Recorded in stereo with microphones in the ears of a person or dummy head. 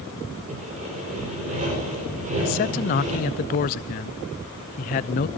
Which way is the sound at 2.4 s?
45° left (ahead or behind).